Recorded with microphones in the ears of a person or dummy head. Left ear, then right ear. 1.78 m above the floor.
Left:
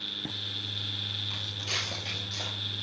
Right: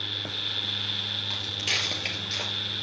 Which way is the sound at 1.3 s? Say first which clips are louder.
Right 5 dB; 35° right (ahead or behind).